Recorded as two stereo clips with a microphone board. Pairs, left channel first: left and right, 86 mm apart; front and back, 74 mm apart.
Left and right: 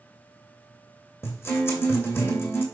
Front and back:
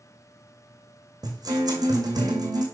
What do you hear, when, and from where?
1.2 s a guitar: 155° left, 2 m